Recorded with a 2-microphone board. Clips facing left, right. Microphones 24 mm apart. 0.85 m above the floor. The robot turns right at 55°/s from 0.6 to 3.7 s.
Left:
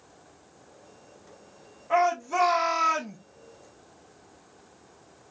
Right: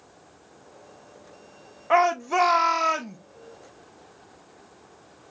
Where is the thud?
I don't hear a thud.